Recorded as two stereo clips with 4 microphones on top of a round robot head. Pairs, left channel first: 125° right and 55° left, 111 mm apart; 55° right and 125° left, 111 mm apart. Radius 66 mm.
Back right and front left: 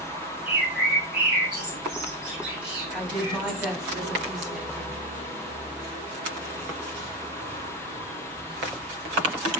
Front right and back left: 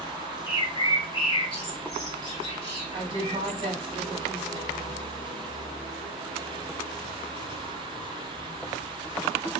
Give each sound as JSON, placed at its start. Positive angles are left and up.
{"t": 0.5, "sound": "a bird", "azimuth_deg": -25, "distance_m": 1.9}
{"t": 2.9, "sound": "a woman speaking", "azimuth_deg": 140, "distance_m": 1.4}